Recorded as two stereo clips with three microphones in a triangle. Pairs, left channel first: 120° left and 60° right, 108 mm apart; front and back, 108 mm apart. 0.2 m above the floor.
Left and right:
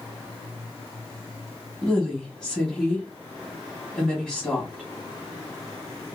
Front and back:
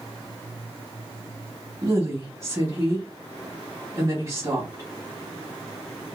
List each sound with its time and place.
1.8 s a woman speaking: 160° right, 1.3 m